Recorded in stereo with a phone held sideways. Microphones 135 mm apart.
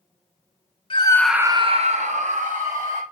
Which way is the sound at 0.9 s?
40° left (ahead or behind).